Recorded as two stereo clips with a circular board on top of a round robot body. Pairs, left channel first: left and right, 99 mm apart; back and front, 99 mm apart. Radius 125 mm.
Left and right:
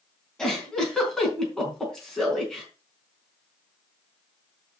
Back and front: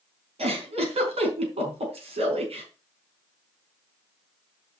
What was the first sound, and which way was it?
A giggle, 5° left.